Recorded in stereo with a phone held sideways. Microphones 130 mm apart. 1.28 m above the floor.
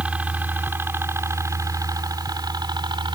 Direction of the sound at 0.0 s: 10° right (ahead or behind).